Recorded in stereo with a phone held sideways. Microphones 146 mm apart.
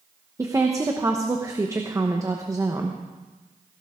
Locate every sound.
0.4 s a woman speaking: 20° right (ahead or behind), 0.9 m